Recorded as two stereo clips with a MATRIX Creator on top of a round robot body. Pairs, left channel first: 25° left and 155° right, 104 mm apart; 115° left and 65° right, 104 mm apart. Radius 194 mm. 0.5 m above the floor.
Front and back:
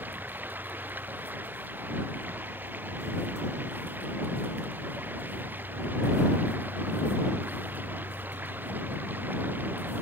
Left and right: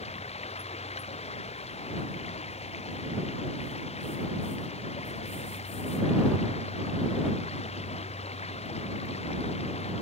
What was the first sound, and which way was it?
Running water, 130° left.